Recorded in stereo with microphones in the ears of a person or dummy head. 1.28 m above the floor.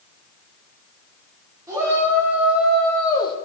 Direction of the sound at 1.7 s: 15° right (ahead or behind).